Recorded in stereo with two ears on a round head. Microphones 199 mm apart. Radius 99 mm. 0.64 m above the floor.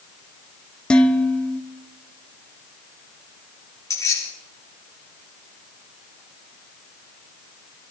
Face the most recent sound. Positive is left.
turn(degrees=15)  # may be behind; listen again after turning